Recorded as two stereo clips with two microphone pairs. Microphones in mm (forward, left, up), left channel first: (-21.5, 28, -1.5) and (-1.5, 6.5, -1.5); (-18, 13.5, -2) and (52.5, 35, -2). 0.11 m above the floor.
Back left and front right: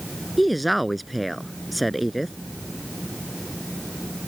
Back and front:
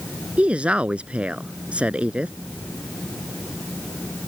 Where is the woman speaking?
50° left.